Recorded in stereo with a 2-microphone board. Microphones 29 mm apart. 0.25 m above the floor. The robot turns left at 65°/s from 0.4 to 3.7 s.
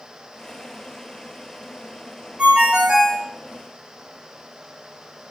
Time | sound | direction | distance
2.4 | a ringtone | 125° right | 0.6 m